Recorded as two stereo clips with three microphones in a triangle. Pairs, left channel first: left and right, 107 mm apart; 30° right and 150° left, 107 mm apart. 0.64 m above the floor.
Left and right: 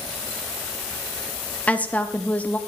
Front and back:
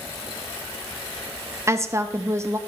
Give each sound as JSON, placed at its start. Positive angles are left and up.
{"t": 1.7, "sound": "a woman speaking", "azimuth_deg": 150, "distance_m": 0.7}